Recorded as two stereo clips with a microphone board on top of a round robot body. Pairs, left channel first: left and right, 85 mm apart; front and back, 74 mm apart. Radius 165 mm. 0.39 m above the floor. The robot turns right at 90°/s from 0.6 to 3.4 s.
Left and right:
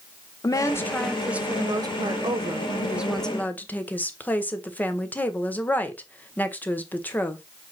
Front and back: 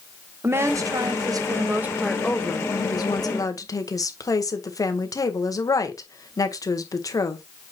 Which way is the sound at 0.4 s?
130° left.